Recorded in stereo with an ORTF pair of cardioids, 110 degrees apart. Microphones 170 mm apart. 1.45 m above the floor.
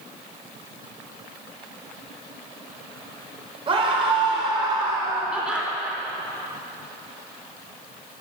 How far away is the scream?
About 5 m.